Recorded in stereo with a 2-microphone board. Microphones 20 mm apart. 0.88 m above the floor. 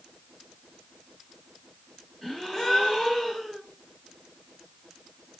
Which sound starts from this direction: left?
A gasp, at 2.2 s.